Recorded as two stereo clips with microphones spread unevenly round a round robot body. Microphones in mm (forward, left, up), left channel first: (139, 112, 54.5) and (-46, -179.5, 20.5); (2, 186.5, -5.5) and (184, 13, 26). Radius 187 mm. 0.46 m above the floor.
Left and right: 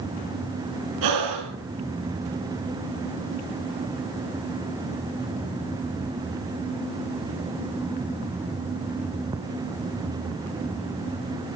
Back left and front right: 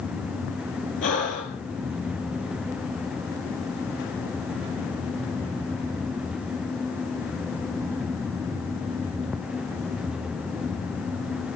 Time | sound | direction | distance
1.0 | breathing | 160° right | 2.5 m